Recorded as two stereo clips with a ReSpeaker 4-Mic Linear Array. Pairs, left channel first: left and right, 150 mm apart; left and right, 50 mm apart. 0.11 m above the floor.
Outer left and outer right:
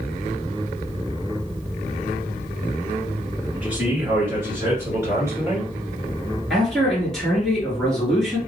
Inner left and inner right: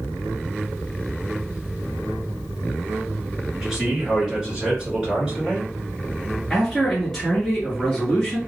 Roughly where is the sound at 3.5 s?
Centre.